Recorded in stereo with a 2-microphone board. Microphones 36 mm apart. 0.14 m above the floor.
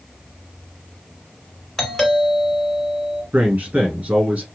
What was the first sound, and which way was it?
A doorbell, 15° left (ahead or behind).